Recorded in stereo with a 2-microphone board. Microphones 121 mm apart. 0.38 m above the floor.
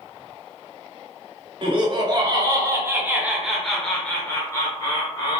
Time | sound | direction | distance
1.6 | laughter | 45° right (ahead or behind) | 1.4 m